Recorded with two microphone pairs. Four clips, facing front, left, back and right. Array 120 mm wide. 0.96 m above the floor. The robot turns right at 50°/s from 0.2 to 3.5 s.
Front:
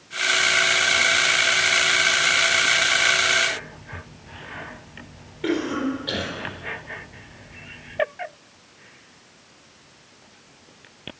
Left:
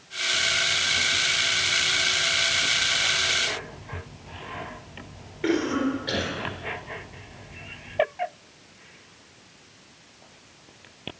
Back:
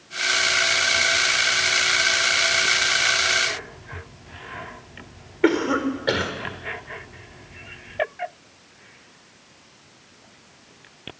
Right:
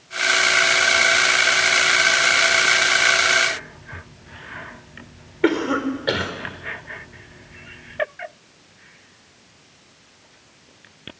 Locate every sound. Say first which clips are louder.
5.4 s a cough: right 4 dB, back 4 dB; 135° right, 4 m